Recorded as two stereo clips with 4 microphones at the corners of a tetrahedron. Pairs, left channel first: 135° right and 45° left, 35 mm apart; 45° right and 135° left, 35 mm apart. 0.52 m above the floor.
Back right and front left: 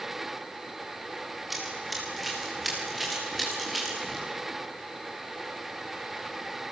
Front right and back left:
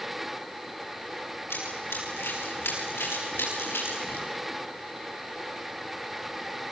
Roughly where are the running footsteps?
Ahead right.